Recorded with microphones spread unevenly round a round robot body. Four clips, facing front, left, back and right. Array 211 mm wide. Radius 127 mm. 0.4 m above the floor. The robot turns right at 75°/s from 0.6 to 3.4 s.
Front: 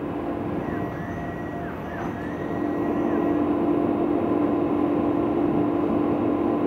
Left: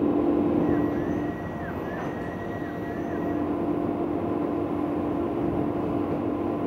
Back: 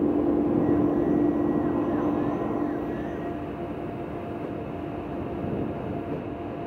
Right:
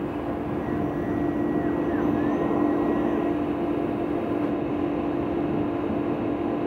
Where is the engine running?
135° left; by 6.7 s 15° right.